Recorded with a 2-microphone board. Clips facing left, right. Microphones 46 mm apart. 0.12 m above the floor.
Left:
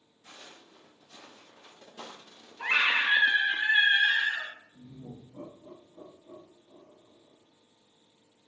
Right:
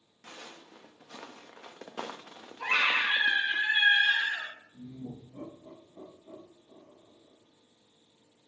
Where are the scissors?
I don't hear scissors.